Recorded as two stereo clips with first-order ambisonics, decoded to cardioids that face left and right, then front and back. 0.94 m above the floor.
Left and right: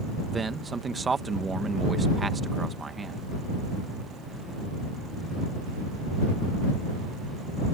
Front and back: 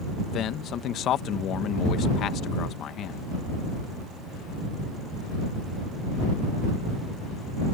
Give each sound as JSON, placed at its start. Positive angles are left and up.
{"t": 0.3, "sound": "a man speaking", "azimuth_deg": -20}